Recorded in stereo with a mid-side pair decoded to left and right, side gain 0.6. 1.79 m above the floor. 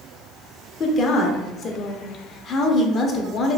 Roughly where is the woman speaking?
Ahead left.